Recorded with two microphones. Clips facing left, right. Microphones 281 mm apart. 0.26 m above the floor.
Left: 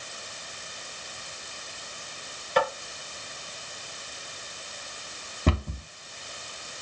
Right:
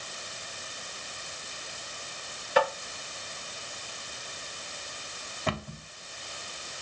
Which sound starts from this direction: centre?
Tapping, at 2.6 s.